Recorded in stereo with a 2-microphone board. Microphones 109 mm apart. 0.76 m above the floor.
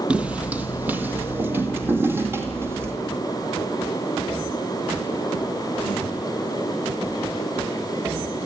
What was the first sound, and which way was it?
Footsteps, 10° right (ahead or behind).